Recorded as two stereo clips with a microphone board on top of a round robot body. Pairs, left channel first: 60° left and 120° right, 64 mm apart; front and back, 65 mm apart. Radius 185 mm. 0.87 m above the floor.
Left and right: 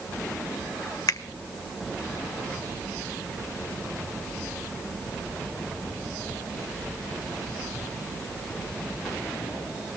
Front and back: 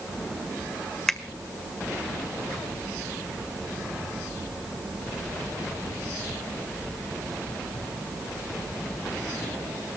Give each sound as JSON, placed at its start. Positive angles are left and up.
{"t": 1.1, "sound": "a finger snap", "azimuth_deg": 80, "distance_m": 1.7}